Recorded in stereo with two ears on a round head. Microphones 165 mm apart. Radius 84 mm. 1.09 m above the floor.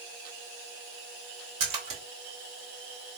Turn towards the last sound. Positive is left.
turn(degrees=-35)  # may be behind; listen again after turning